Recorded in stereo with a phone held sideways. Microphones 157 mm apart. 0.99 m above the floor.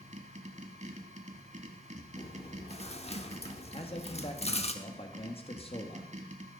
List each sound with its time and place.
0.0 s a machine running: 50° right (ahead or behind), 1.3 m
2.2 s chewing: 40° left (ahead or behind), 0.9 m
3.7 s a man speaking: 40° left (ahead or behind), 1.3 m